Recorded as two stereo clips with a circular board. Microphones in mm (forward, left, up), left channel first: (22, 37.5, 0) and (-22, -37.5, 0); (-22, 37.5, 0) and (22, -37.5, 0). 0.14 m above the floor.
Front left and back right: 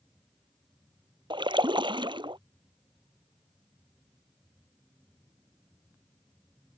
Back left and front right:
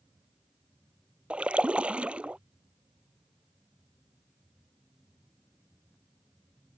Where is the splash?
135° right.